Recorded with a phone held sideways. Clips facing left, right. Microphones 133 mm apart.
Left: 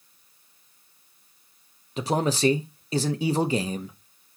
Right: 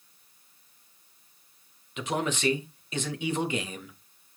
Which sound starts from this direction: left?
A man speaking, at 2.0 s.